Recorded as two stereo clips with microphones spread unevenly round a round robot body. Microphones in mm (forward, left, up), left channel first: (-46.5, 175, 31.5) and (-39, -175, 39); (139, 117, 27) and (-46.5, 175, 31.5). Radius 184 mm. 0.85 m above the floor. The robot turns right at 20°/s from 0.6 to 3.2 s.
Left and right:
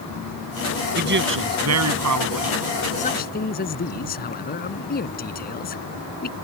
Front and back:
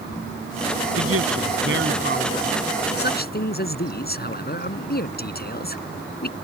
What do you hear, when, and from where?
0.9 s a man speaking: 155° right; by 2.5 s 120° right
3.0 s a man speaking: 20° left